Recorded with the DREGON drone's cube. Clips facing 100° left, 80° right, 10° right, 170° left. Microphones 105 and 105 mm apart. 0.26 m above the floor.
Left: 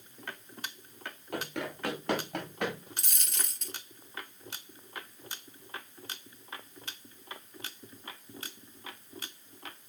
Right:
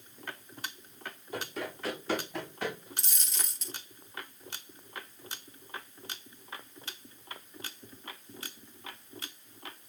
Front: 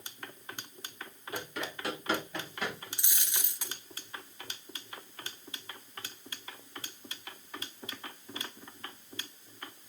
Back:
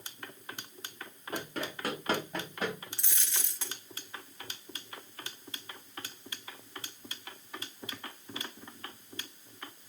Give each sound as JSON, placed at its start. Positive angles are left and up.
{"t": 1.3, "sound": "running footsteps", "azimuth_deg": 120, "distance_m": 9.0}
{"t": 3.0, "sound": "a dropped coin", "azimuth_deg": 65, "distance_m": 1.3}